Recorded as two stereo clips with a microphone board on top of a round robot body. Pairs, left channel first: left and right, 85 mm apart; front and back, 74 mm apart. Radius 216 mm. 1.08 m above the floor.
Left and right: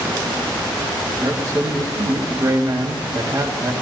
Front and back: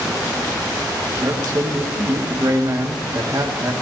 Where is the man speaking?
140° right, 2 m.